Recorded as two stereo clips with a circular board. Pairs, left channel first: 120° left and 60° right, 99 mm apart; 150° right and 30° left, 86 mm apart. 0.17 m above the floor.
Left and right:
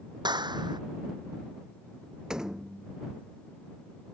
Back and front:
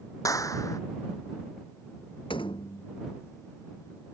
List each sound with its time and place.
0.2 s a clap: 100° right
2.3 s a door slam: 140° right